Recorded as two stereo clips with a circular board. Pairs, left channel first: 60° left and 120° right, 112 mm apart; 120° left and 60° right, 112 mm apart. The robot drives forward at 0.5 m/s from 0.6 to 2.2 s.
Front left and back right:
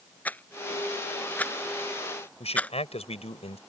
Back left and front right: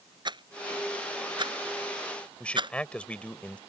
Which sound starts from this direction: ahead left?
A man speaking, at 2.4 s.